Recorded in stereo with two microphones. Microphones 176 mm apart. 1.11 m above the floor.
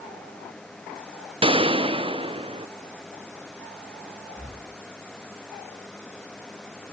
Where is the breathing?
15° left (ahead or behind), 4.5 m.